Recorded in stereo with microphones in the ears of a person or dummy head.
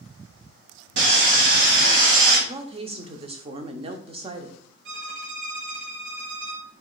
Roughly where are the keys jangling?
I don't hear keys jangling.